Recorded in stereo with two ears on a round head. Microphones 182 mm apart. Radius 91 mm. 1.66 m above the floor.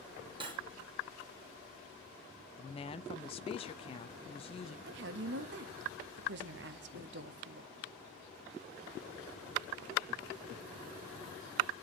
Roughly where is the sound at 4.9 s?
Right.